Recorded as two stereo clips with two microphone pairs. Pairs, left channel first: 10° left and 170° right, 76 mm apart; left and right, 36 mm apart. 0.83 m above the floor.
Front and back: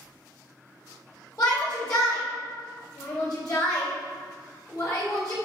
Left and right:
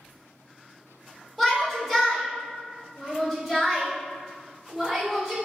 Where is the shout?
5° right, 0.6 m.